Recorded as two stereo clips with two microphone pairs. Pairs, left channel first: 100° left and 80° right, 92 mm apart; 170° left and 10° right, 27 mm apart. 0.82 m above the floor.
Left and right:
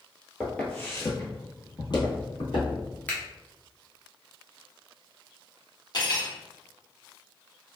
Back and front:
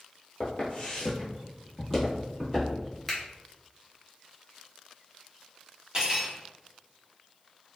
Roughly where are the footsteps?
Behind.